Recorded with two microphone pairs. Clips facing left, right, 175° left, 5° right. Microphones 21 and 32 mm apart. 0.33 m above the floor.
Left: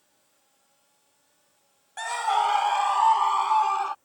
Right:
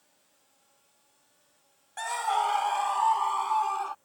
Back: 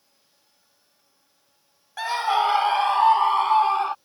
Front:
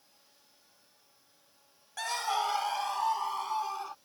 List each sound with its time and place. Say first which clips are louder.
2.0 s a scream: left 3 dB, back 9 dB; 145° left